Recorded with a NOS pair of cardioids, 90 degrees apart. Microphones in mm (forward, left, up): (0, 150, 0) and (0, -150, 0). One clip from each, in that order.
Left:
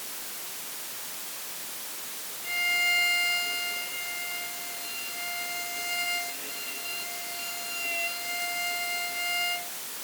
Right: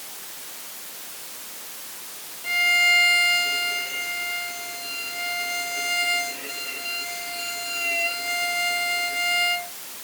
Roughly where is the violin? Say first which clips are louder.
Right 7 dB; ahead right.